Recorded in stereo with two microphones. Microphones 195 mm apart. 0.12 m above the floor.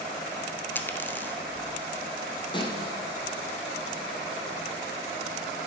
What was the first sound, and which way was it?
A dropped coin, 10° left (ahead or behind).